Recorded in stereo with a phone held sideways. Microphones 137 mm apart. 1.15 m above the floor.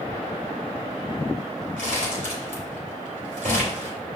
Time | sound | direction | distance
1.8 | crumpling | 80° right | 3 m